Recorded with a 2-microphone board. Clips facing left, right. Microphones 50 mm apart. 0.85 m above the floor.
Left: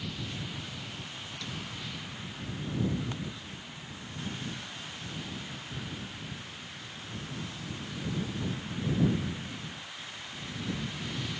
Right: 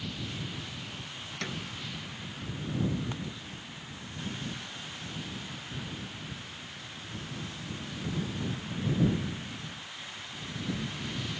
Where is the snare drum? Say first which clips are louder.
Right 5 dB; 55° right (ahead or behind).